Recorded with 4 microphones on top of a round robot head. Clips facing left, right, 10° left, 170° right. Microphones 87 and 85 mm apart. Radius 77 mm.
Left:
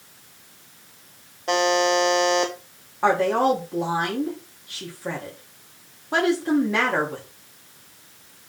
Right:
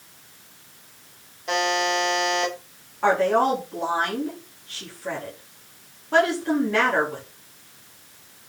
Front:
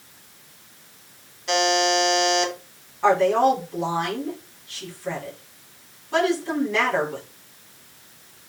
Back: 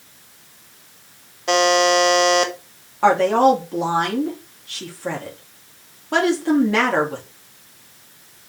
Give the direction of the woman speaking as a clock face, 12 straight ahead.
6 o'clock.